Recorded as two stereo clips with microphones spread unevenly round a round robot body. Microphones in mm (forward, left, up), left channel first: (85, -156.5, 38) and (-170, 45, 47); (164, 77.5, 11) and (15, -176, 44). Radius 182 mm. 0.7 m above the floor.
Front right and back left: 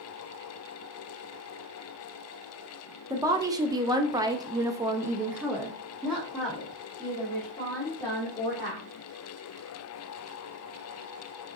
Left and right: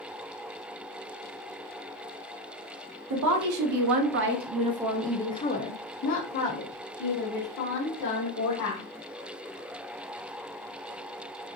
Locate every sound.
3.1 s a woman speaking: 140° right, 1.1 m; by 8.8 s 45° left, 2 m